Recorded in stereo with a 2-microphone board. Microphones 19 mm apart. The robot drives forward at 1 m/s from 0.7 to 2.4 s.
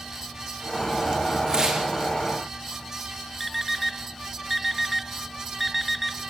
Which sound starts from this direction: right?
Tearing paper, at 1.5 s.